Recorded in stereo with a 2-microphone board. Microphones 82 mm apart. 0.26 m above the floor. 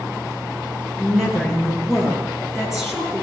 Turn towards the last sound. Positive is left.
turn(degrees=-5)  # may be behind; listen again after turning